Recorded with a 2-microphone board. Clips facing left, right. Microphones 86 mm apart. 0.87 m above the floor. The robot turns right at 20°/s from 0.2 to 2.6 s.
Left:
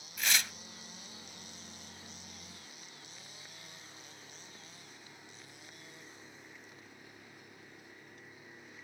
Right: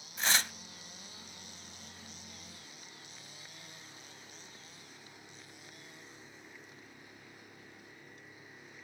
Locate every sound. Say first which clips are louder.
0.2 s tearing paper: right 2 dB; 30° right (ahead or behind), 0.8 m